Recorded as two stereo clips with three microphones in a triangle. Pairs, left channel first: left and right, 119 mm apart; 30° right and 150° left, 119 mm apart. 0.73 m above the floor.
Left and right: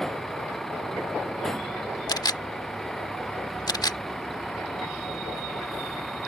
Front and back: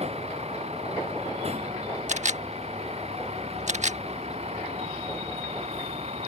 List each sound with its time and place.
0.0 s a vehicle: 175° left
2.1 s a camera shutter: 145° left